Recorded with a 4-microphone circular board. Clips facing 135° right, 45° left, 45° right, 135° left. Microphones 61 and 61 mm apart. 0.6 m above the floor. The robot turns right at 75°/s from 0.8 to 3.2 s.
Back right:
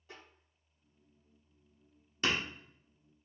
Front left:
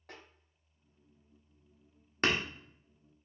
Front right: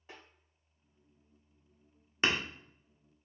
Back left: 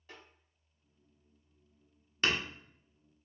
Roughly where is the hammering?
Ahead.